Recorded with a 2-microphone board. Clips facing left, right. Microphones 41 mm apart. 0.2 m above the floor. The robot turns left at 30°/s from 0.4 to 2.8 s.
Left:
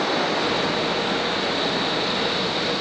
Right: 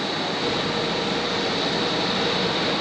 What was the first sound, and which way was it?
Running water, 70° left.